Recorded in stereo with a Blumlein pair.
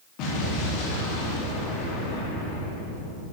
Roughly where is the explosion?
Ahead left.